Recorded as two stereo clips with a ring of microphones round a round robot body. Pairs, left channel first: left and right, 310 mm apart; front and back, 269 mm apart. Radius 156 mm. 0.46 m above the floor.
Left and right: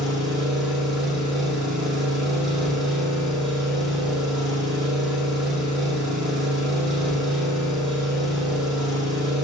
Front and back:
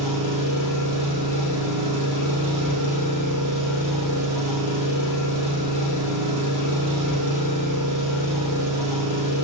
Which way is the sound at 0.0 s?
Straight behind.